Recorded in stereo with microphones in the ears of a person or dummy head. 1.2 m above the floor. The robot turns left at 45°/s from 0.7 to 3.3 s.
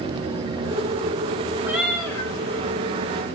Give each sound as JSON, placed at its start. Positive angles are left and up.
{"t": 1.6, "sound": "a cat meowing", "azimuth_deg": -170, "distance_m": 3.5}